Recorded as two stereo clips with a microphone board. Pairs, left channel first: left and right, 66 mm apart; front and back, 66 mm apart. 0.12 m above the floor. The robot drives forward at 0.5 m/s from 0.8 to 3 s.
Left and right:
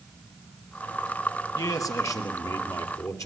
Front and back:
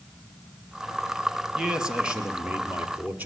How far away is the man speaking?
About 2.5 m.